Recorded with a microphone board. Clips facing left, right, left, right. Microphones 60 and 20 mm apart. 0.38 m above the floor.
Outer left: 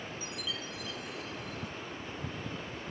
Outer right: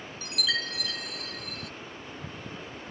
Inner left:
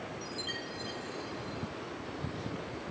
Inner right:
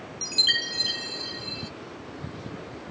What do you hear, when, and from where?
0.2 s a chime: 75° right (ahead or behind)